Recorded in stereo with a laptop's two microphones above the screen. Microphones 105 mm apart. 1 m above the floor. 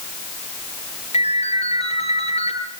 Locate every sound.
1.1 s a ringtone: 80° left, 7 m